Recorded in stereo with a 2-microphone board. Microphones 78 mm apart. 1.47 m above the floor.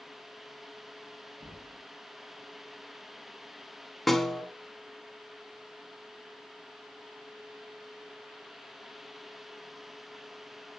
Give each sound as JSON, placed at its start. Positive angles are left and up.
{"t": 1.4, "sound": "knocking", "side_deg": -75, "distance_m": 1.8}
{"t": 4.1, "sound": "a snare drum", "side_deg": 5, "distance_m": 1.2}